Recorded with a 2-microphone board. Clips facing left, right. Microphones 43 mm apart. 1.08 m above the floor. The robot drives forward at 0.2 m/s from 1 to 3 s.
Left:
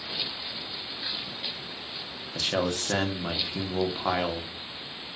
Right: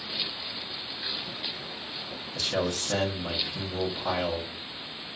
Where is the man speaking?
35° left (ahead or behind), 0.5 m; by 4.5 s 30° left (ahead or behind), 0.6 m.